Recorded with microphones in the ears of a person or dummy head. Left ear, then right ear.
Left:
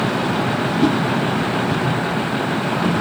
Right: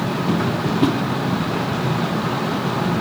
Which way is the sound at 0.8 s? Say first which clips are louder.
Left 1 dB; 30° right (ahead or behind).